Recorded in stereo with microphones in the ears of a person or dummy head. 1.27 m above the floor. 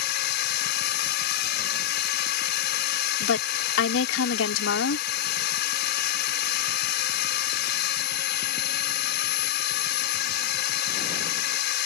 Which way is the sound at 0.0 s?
50° left (ahead or behind).